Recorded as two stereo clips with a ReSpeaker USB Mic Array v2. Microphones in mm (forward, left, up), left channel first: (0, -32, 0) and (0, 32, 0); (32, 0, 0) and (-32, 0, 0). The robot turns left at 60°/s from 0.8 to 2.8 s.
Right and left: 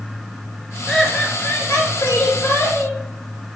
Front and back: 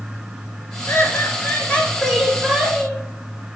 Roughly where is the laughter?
Ahead.